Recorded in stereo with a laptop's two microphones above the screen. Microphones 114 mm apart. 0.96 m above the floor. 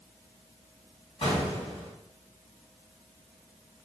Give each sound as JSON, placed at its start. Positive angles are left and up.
{"t": 1.2, "sound": "an explosion", "side_deg": 55, "distance_m": 1.5}